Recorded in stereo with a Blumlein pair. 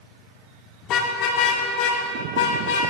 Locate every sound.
0.8 s a car horn: 35° left, 2 m; by 2.8 s 55° left, 4 m